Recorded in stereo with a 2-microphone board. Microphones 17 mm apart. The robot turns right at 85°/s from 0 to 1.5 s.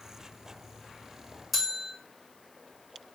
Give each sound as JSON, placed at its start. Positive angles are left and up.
{"t": 1.5, "sound": "a bell", "side_deg": -5, "distance_m": 5.0}